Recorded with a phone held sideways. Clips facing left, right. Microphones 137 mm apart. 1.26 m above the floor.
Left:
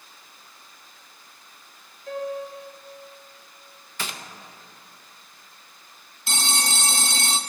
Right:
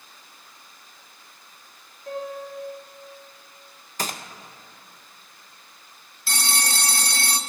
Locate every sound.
2.1 s a piano: 55° right (ahead or behind), 3.5 m
4.0 s a gunshot: 45° right (ahead or behind), 0.5 m
6.3 s a phone ringing: 20° left (ahead or behind), 0.5 m